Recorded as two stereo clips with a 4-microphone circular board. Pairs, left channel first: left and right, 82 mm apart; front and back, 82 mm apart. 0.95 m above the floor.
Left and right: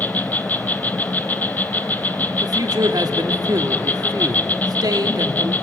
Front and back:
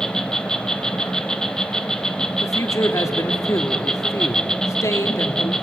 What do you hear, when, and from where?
0.0 s an insect: 70° left, 0.7 m
2.4 s a man speaking: 50° right, 1.7 m